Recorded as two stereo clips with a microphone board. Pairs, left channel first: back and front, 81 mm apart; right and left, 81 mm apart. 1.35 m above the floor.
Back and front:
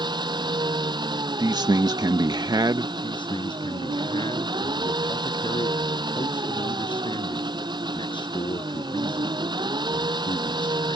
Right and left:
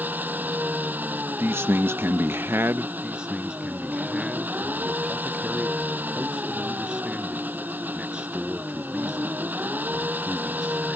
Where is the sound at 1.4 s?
30° left.